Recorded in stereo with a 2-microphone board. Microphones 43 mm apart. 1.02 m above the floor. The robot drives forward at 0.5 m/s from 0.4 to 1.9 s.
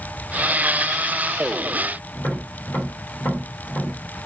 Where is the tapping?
65° left (ahead or behind), 1.5 m.